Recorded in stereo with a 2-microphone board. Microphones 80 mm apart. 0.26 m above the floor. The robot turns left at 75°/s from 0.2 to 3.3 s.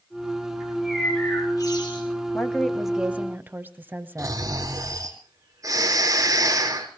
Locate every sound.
0.6 s a bird: 155° right, 6 m; by 2.1 s 95° left, 6 m
2.3 s a woman speaking: 30° left, 1.6 m; by 4.4 s 40° right, 1.6 m
4.2 s snoring: 45° right (ahead or behind), 4.5 m